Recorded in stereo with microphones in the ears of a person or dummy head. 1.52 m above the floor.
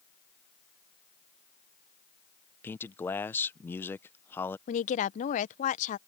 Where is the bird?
No bird in this recording.